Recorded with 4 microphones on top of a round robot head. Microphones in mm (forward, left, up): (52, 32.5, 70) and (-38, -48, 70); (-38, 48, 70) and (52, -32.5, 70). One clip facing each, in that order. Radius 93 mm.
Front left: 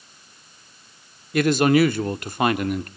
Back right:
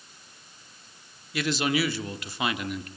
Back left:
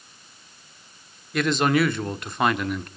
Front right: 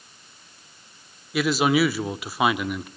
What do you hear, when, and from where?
1.3 s a man speaking: 40° left, 1.0 m